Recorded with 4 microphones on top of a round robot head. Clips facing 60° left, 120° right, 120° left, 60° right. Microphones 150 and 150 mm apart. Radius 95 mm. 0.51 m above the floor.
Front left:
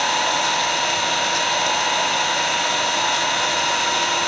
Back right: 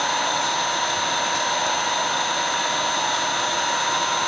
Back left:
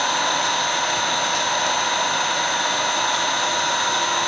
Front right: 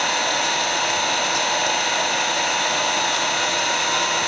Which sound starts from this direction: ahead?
An engine running, at 0.0 s.